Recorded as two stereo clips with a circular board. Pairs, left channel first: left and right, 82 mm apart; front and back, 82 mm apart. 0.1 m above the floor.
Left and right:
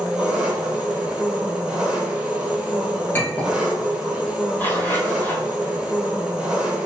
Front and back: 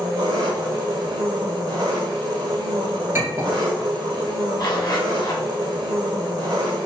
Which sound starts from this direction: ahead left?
A zipper, at 4.6 s.